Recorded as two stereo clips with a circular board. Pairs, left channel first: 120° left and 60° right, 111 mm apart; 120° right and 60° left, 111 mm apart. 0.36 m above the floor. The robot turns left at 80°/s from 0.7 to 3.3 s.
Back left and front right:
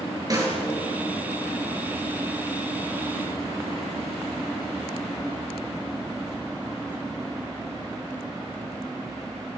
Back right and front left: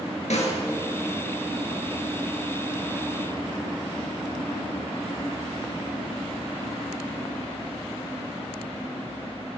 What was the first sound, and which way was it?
A snare drum, 115° right.